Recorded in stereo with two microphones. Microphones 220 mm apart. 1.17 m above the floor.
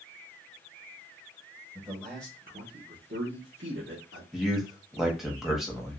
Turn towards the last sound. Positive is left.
turn(degrees=0)  # may be behind; listen again after turning